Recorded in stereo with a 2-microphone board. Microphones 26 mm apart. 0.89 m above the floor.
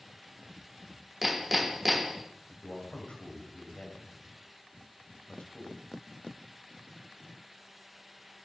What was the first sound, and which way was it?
Hammering, 5° right (ahead or behind).